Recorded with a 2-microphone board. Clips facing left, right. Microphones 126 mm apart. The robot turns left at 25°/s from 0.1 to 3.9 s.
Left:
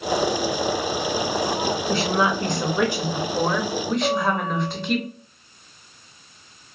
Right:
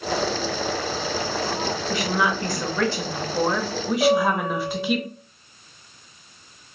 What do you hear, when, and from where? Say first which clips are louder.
1.9 s a woman speaking: left 2 dB; 45° left, 0.8 m; by 5.0 s 5° right, 0.8 m
4.0 s a piano: right 7 dB; 55° right (ahead or behind), 1.9 m